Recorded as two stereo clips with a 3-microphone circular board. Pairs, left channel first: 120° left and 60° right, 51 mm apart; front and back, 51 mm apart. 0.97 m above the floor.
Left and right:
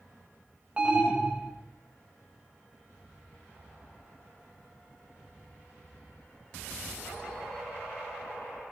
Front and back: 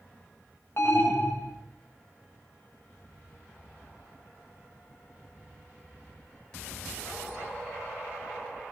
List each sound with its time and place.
0.8 s an alarm: 5° left, 2.0 m